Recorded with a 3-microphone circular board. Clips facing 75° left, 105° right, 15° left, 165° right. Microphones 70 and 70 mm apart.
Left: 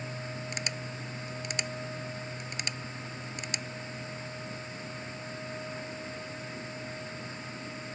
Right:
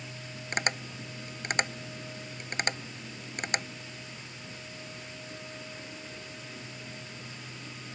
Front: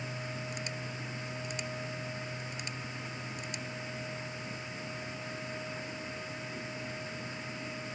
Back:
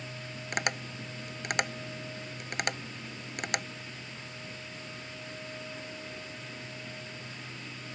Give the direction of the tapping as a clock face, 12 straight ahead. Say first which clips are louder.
Right 5 dB, back 6 dB; 5 o'clock.